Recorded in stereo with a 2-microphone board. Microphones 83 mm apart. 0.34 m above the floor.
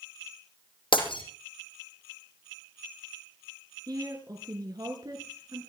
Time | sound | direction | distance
0.9 | breaking glass | 85° left | 6 m
3.9 | a woman speaking | 50° right (ahead or behind) | 4.5 m